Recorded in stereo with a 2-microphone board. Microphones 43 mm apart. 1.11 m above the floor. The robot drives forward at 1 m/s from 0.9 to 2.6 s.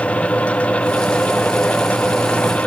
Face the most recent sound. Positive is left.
No sound to turn to.